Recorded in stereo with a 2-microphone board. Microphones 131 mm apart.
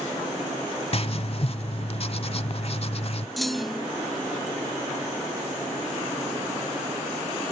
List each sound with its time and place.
0.9 s writing: 50° left (ahead or behind), 0.7 m
3.4 s a clunk: centre (ahead or behind), 0.6 m